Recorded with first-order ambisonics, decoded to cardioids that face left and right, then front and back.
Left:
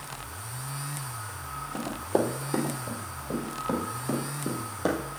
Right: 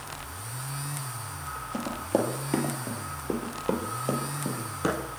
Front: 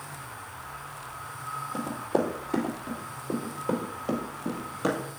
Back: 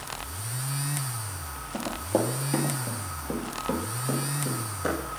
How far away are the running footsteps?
About 2 m.